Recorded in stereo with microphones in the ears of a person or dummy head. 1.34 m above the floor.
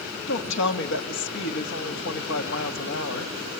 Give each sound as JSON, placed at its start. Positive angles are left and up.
{"t": 0.3, "sound": "a woman speaking", "side_deg": 65, "distance_m": 2.5}